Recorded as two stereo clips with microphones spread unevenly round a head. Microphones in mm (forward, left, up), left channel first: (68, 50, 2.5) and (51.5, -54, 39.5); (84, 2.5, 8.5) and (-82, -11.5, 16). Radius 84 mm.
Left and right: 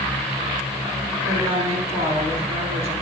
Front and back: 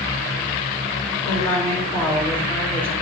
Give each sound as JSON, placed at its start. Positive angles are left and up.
{"t": 1.2, "sound": "a woman speaking", "azimuth_deg": -75, "distance_m": 3.5}